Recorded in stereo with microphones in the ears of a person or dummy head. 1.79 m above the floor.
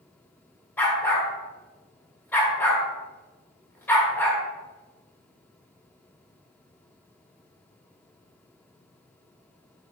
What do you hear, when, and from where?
0.8 s a dog barking: 15° left (ahead or behind), 1.6 m